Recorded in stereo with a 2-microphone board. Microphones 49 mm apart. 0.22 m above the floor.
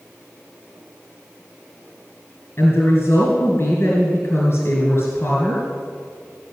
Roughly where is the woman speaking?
Left.